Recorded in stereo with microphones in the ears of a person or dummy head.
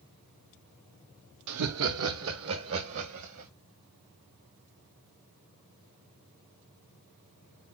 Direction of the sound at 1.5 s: 80° right.